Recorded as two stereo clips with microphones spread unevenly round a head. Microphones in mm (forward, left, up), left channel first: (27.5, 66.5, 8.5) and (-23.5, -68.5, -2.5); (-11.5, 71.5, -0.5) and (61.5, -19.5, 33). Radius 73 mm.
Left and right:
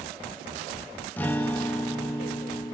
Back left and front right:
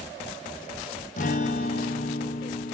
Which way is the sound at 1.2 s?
135° left.